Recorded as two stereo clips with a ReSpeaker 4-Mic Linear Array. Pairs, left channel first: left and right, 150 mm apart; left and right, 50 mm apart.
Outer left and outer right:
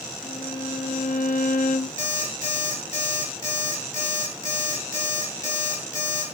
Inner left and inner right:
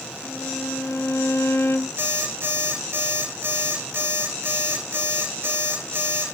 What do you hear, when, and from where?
0.2 s a violin: 60° left (ahead or behind), 0.9 m
2.0 s an alarm clock: 60° right (ahead or behind), 6.5 m